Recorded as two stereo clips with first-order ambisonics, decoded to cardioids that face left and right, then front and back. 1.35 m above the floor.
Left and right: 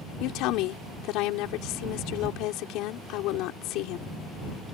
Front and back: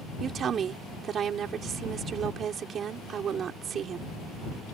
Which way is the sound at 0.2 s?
120° left.